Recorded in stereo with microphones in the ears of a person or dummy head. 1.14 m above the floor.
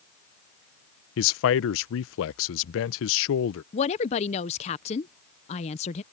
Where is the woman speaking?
25° left (ahead or behind).